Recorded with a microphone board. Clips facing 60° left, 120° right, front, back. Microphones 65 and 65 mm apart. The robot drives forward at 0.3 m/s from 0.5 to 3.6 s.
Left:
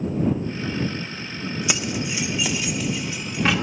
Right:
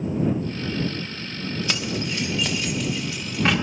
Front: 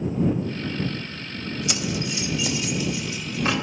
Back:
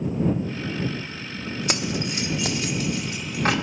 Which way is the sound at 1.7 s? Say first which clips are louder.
Left 2 dB, back 2 dB; 135° left.